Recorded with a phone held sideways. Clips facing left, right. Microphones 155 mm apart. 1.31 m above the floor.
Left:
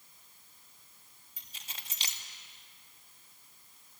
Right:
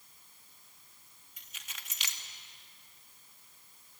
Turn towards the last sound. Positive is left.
turn(degrees=30)  # may be behind; listen again after turning